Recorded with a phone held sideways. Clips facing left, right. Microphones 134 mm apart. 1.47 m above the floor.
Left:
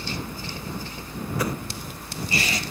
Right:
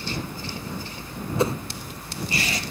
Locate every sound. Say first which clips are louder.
1.4 s a whoosh: right 5 dB; 25° right (ahead or behind)